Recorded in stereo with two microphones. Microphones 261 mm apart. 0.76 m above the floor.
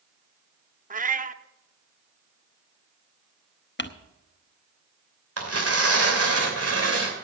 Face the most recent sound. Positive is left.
turn(degrees=-70)  # may be behind; listen again after turning